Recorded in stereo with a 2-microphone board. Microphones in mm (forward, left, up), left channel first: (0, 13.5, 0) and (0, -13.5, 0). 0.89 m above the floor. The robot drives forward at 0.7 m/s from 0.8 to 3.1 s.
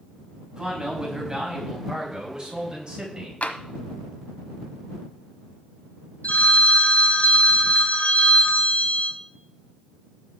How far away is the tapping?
About 1.3 m.